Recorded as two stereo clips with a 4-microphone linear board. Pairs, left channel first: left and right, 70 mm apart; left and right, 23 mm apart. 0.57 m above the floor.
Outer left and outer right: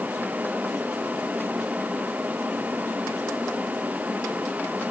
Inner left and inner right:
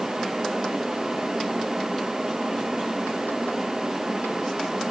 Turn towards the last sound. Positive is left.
No sound to turn to.